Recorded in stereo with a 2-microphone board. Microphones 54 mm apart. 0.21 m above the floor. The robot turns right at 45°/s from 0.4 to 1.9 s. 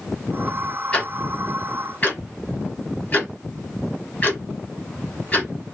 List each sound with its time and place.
0.9 s ticking: 20° left (ahead or behind), 1.5 m; by 5.5 s 30° left (ahead or behind), 1.5 m